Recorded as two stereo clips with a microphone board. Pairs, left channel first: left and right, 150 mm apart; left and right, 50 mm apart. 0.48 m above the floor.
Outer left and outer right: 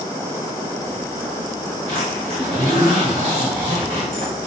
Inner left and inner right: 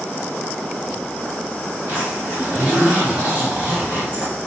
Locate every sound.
1.9 s a zipper: 40° right (ahead or behind), 1.2 m